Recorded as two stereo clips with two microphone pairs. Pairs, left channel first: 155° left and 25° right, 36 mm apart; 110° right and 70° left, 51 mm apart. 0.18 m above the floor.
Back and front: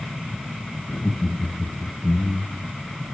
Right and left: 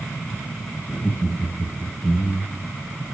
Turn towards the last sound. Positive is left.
turn(degrees=145)